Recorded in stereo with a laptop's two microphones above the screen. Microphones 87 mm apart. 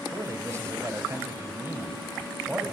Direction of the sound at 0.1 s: 35° right (ahead or behind).